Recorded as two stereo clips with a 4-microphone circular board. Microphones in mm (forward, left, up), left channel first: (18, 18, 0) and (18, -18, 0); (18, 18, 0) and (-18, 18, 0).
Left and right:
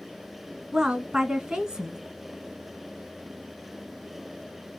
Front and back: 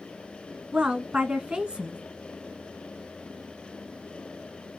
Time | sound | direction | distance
0.7 | a woman speaking | 140° right | 1.2 m